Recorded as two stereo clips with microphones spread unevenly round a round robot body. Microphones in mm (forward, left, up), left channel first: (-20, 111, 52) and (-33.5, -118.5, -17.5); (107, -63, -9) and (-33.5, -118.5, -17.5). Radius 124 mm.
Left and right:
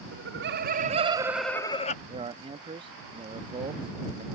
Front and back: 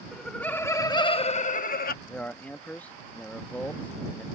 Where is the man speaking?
60° right.